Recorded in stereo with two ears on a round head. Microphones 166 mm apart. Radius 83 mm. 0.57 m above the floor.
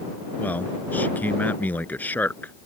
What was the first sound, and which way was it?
A man speaking, 10° left (ahead or behind).